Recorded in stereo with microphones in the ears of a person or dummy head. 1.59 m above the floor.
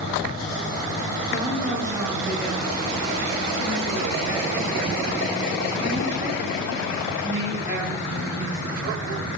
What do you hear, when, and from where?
1.3 s a woman speaking: 20° right (ahead or behind), 3 m